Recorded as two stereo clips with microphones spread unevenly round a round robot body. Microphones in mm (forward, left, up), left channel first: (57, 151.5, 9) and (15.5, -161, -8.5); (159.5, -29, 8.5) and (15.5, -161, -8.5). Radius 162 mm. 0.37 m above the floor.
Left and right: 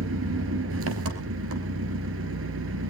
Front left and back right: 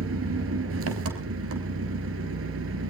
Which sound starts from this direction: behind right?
An engine running, at 0.0 s.